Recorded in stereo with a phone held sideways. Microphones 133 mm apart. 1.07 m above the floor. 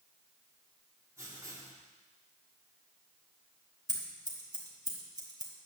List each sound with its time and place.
1.2 s writing: 20° right (ahead or behind), 3 m
3.9 s scissors: 30° right (ahead or behind), 1.9 m